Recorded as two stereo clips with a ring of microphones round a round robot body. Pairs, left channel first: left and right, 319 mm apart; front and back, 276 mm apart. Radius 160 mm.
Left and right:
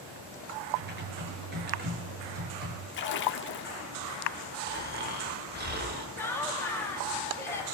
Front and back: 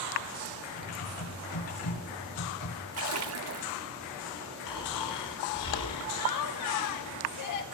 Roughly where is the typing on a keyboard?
Ahead right.